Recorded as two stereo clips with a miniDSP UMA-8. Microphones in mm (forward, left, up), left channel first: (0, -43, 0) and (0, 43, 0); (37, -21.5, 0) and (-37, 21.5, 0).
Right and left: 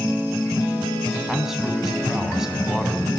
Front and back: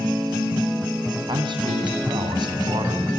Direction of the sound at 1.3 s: 175° left.